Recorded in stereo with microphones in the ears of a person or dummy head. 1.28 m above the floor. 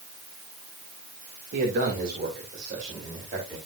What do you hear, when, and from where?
1.5 s a man speaking: 55° right (ahead or behind), 2.5 m; by 3.6 s 40° right (ahead or behind), 4.5 m